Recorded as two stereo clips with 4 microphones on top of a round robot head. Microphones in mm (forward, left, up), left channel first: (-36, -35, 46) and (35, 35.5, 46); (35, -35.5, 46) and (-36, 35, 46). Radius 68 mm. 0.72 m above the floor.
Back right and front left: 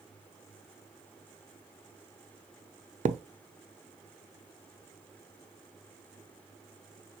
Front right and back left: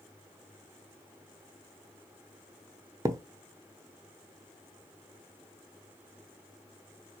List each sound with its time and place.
3.0 s a thud: 70° left, 0.5 m